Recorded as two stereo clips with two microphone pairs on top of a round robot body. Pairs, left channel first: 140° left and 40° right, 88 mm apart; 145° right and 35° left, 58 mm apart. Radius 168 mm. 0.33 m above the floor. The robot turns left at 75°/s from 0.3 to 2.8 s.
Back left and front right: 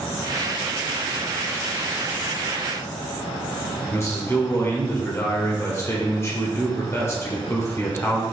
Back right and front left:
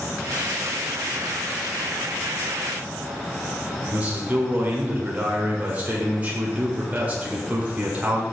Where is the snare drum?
I don't hear a snare drum.